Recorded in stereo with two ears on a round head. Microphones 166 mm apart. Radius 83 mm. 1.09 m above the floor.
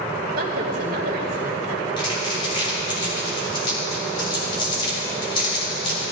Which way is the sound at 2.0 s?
25° left (ahead or behind).